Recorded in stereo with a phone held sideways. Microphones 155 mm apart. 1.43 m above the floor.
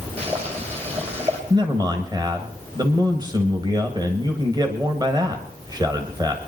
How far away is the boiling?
About 3.5 m.